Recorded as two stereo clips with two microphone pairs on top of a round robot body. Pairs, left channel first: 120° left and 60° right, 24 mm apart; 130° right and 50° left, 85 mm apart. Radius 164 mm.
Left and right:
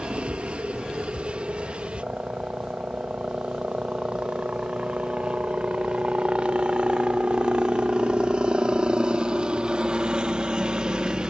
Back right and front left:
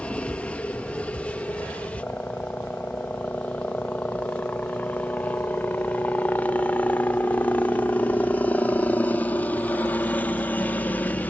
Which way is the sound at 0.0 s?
60° right.